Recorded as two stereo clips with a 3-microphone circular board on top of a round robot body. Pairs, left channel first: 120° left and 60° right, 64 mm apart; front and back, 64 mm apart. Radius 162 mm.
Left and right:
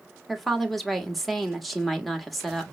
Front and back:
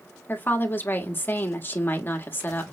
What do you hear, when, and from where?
0.3 s a woman speaking: 30° left, 1.4 m